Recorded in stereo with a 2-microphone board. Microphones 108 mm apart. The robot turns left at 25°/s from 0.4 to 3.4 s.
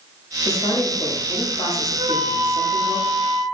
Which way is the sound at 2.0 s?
20° right.